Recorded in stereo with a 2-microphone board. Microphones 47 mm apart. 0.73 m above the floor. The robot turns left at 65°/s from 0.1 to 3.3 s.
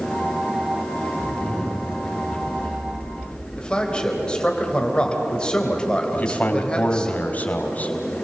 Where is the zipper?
30° left, 6 m; by 3.5 s 105° right, 6 m.